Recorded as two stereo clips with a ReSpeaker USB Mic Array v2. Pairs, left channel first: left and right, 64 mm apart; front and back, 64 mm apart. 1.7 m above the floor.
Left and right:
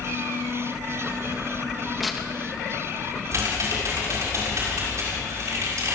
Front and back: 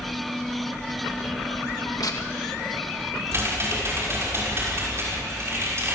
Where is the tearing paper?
Straight ahead, 2.5 m.